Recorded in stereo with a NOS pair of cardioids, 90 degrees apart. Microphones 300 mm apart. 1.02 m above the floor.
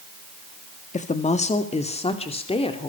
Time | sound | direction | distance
0.9 | a woman speaking | 25° left | 1.6 m